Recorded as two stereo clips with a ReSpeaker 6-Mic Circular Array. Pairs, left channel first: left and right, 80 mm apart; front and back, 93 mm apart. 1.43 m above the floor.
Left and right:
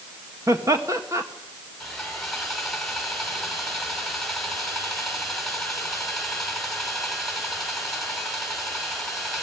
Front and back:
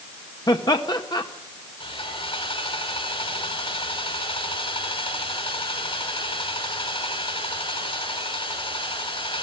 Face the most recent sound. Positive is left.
turn(degrees=0)